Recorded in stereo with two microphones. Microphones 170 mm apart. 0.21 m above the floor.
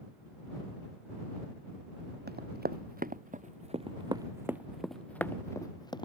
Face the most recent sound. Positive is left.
turn(degrees=25)  # may be behind; listen again after turning